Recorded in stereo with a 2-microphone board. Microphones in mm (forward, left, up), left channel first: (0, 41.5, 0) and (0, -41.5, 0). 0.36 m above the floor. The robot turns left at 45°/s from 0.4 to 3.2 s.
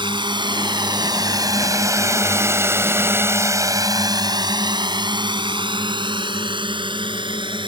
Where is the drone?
70° right (ahead or behind); by 7.7 s 75° right (ahead or behind).